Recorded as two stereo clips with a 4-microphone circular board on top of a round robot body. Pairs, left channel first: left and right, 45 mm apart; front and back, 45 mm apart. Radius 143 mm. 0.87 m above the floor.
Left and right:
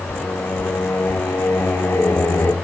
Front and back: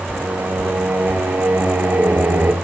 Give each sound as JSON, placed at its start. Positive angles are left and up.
{"t": 0.1, "sound": "singing", "azimuth_deg": 135, "distance_m": 0.8}